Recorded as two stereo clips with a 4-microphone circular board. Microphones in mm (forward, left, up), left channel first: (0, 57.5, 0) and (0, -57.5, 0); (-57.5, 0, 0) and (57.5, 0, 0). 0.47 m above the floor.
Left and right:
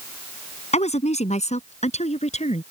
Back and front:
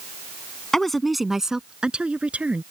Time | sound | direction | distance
0.7 | a woman speaking | 95° left | ?